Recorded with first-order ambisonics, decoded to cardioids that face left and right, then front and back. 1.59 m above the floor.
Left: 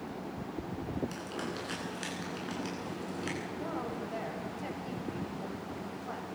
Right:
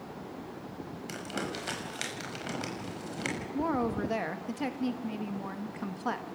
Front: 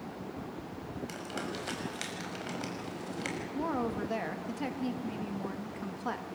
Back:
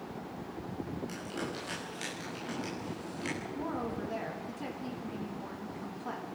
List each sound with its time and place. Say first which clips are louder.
1.1 s crumpling: right 2 dB, even; 70° right, 5.5 m
3.5 s a woman speaking: right 6 dB, front 3 dB; 70° right, 2 m